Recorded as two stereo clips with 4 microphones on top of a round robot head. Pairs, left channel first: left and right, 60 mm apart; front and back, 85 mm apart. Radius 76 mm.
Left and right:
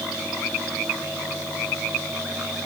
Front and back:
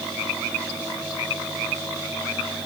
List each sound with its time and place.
Only background noise.